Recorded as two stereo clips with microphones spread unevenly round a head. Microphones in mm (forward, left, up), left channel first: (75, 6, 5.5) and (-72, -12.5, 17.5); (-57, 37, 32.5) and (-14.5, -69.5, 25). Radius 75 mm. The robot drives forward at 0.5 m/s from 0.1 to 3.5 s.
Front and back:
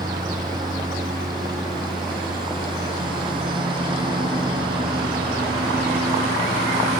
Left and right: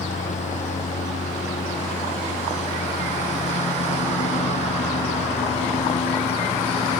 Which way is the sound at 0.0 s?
125° left.